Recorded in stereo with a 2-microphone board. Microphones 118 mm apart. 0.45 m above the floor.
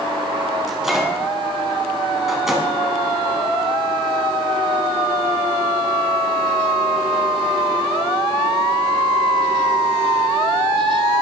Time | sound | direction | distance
0.7 | a microwave | 5° right (ahead or behind) | 3.5 m